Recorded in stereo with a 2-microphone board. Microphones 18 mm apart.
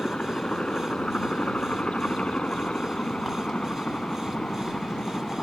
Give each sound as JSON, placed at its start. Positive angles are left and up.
{"t": 0.0, "sound": "a helicopter", "side_deg": 80}